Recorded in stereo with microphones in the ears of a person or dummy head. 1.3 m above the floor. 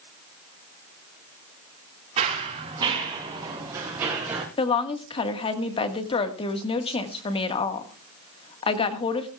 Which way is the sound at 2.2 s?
30° right (ahead or behind).